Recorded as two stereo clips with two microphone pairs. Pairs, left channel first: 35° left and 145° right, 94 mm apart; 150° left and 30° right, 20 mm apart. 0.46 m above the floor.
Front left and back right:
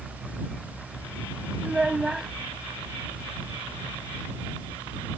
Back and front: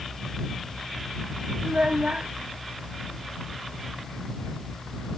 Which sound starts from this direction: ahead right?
A child speaking, at 1.6 s.